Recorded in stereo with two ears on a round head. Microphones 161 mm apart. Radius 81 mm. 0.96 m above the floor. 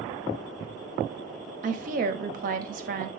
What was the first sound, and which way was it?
A woman speaking, 45° right (ahead or behind).